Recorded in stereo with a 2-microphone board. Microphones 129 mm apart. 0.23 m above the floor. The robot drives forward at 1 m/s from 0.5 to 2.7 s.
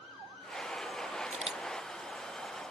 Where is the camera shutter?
65° right (ahead or behind); by 1.6 s 45° right (ahead or behind).